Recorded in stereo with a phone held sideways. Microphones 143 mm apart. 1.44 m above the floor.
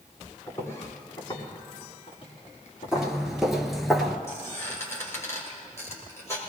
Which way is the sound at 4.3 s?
20° left (ahead or behind).